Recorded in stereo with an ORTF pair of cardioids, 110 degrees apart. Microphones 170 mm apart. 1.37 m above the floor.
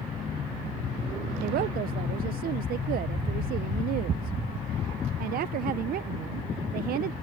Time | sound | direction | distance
1.4 | a woman speaking | 60° right | ?